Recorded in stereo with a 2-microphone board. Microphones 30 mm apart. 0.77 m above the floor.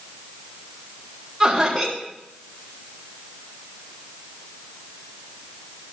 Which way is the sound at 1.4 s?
5° right (ahead or behind).